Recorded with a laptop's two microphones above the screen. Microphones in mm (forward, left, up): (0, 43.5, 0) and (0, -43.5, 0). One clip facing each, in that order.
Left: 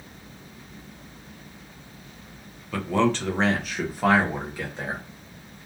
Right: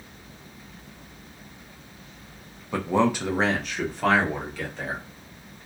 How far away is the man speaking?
About 0.6 m.